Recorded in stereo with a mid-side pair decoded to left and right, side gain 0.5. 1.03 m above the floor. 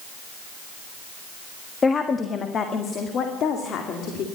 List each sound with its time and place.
1.8 s a woman speaking: 30° left, 1.4 m; by 4.2 s 65° left, 2.5 m